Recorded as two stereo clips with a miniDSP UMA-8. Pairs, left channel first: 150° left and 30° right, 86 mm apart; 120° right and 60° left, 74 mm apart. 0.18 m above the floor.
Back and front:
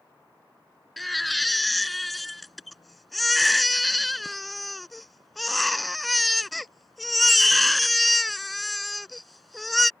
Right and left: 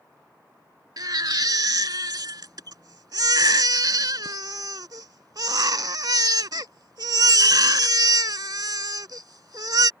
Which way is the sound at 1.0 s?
60° left.